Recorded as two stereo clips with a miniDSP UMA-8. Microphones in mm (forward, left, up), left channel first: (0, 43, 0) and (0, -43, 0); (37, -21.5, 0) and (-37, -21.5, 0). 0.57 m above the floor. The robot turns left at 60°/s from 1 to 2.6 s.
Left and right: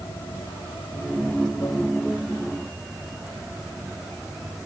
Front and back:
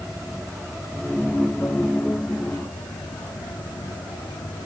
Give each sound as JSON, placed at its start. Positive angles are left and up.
{"t": 0.0, "sound": "running water", "azimuth_deg": 90}